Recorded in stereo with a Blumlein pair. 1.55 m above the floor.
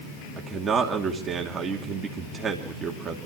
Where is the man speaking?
15° right, 2.5 m.